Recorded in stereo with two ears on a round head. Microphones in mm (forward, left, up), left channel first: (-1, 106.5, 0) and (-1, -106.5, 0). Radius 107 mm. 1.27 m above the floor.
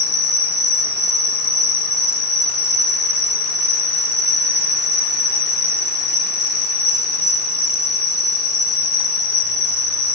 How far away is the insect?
About 1.3 m.